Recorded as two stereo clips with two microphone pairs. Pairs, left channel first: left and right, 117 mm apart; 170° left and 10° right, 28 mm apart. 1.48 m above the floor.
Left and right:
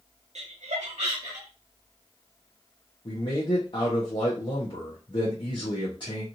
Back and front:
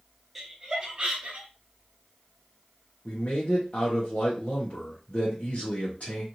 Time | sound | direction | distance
0.3 | laughter | 100° right | 0.6 m
3.0 | a man speaking | 135° left | 0.9 m